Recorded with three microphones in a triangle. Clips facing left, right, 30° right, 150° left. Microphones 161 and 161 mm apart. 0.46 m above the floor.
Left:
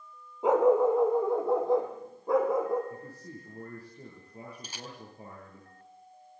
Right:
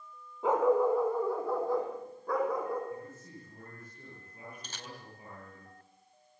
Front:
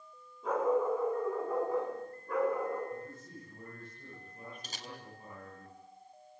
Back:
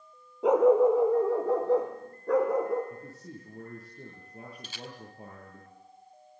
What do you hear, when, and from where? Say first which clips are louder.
0.4 s a dog barking: left 4 dB, back 10 dB; 160° left, 4 m
2.9 s a man speaking: even, even; 145° left, 10 m
4.6 s a camera shutter: left 3 dB, back 3 dB; 10° left, 3 m